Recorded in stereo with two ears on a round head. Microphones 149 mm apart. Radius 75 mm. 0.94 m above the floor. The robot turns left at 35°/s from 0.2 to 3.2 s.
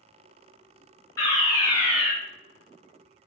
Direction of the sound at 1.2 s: 20° left (ahead or behind).